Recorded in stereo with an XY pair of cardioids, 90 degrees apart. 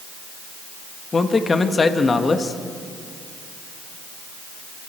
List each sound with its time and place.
1.1 s a man speaking: 35° left, 1.7 m